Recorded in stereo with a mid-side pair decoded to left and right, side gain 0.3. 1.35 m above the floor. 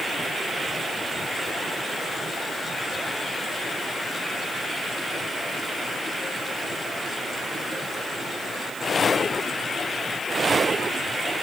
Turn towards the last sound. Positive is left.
No sound to turn to.